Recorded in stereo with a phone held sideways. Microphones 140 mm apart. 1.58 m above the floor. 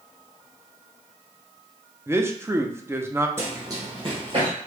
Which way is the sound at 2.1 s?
20° right (ahead or behind).